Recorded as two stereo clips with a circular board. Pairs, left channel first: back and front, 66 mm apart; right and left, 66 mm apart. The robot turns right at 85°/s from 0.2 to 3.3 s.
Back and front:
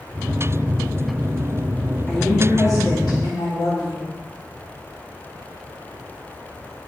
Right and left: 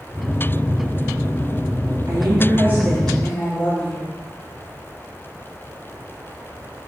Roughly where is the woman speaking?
Left.